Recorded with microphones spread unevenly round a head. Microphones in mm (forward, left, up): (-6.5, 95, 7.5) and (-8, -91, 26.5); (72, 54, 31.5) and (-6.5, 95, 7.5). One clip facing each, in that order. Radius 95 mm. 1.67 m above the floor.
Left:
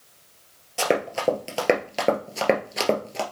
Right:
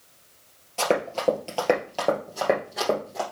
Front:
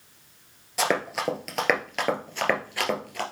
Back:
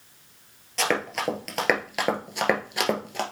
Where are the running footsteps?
15° left, 2.0 m; by 3.2 s 95° left, 1.8 m.